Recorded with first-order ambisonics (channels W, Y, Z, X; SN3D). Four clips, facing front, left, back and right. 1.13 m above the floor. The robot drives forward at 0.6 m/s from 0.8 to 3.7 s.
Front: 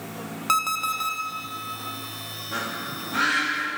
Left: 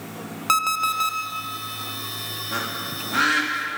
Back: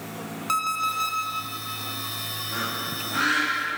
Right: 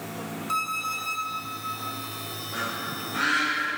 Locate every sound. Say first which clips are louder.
0.5 s an alarm clock: left 7 dB, front 1 dB; 70° left, 0.7 m; by 1.2 s 95° left, 0.7 m
2.5 s a bird: left 1 dB, front 1 dB; 75° left, 1.9 m; by 3.8 s 100° left, 1.9 m